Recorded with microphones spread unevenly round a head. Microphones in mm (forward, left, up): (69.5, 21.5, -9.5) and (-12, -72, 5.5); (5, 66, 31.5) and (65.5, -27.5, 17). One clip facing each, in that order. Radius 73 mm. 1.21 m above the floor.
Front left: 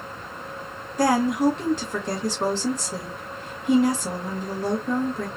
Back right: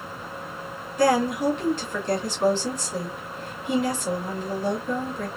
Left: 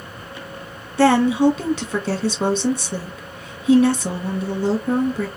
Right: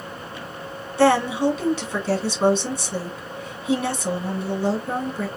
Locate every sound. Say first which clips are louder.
1.0 s a woman speaking: front left 1 dB, left 3 dB; 110° left, 1.8 m